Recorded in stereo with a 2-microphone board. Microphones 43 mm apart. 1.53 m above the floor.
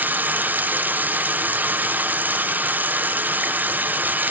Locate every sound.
0.0 s running water: 50° right (ahead or behind), 0.9 m